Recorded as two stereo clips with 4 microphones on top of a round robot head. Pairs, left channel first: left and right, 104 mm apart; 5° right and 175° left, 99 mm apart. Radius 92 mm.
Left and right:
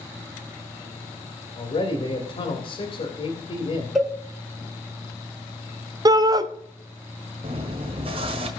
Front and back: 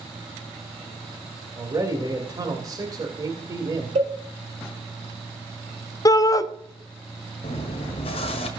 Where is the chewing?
45° right, 1.4 m.